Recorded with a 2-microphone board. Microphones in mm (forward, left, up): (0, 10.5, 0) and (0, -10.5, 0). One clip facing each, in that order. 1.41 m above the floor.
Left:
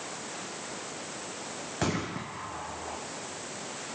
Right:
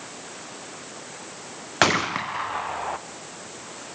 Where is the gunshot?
60° right (ahead or behind), 0.6 m.